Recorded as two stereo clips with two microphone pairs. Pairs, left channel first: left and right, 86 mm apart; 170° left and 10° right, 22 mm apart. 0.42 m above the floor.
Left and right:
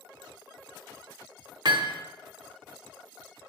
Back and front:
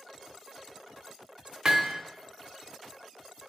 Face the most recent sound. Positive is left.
turn(degrees=-55)